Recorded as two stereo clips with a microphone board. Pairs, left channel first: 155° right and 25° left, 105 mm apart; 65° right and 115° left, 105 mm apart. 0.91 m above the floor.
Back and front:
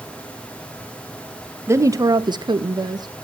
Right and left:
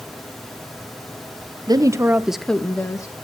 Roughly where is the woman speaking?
Left.